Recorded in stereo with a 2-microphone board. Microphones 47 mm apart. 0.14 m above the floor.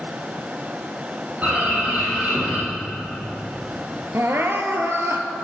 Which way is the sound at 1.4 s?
35° right (ahead or behind).